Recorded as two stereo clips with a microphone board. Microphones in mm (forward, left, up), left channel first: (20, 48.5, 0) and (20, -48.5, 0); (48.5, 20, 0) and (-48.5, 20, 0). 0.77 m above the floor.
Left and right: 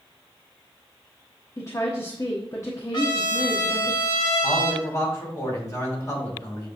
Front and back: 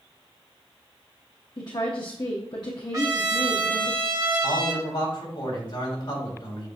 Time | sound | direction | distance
1.6 | a woman speaking | 35° left | 1.1 m
2.9 | a trumpet | 130° left | 1.5 m
4.4 | a man speaking | 30° left | 3.5 m